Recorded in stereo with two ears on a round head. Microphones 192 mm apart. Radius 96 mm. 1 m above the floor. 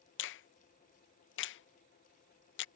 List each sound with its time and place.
0.2 s a finger snap: 55° left (ahead or behind)